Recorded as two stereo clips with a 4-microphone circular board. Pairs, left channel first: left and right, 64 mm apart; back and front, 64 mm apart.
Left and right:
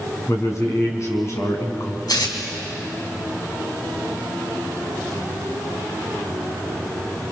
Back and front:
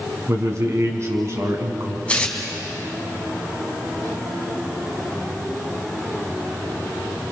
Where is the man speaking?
45° left, 4.5 m.